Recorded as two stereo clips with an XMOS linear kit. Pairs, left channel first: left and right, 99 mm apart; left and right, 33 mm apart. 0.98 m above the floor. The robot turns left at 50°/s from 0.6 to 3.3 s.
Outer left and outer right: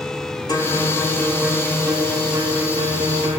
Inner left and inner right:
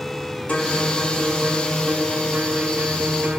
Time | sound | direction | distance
0.5 | a guitar | 45° left | 1.7 m